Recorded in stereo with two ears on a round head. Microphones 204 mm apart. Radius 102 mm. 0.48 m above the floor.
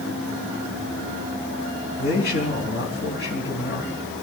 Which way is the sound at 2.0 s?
50° left (ahead or behind).